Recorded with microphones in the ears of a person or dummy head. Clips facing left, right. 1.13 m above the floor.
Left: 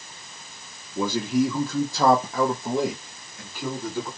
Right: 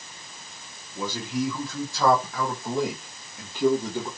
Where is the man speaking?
50° left (ahead or behind), 1.3 m; by 4.1 s 40° right (ahead or behind), 1.3 m.